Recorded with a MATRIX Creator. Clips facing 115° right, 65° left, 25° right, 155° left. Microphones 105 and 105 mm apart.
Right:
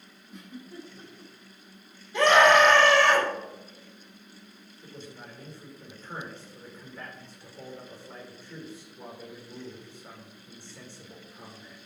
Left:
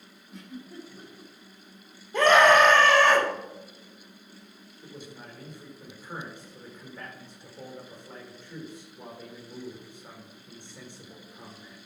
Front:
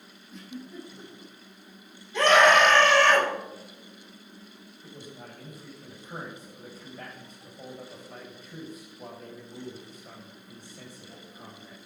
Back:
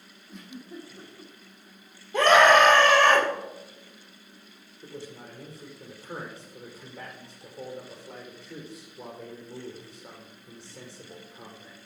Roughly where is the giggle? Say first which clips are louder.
Left 1 dB, front 1 dB; behind left.